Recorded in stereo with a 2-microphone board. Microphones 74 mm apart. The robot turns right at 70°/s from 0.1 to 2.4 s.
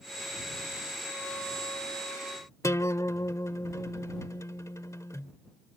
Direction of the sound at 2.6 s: 45° left (ahead or behind).